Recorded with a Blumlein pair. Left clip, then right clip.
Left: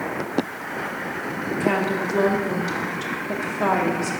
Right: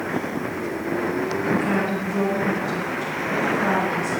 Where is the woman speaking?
65° left, 2 m.